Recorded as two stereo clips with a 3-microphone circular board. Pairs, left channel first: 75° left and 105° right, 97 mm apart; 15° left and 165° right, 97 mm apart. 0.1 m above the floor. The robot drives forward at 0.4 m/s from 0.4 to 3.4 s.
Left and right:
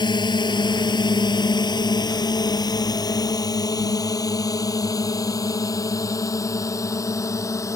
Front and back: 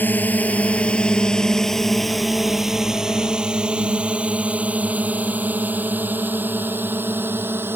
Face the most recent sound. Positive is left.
turn(degrees=130)